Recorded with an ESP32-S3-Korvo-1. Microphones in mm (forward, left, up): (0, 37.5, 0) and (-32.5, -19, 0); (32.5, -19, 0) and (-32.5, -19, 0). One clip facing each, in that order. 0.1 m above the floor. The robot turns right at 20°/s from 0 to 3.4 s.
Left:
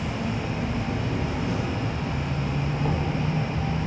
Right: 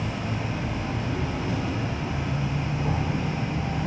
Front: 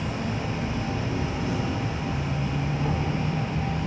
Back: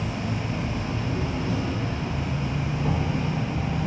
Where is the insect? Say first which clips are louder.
Left 1 dB, even; 45° left, 1.2 m; by 3.9 s 110° left, 1.2 m.